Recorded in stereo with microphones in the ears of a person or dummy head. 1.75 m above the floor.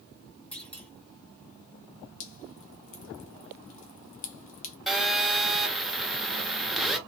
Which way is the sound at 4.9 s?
Centre (ahead or behind).